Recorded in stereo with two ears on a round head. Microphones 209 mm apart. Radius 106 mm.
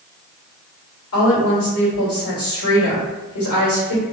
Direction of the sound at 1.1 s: 70° left (ahead or behind).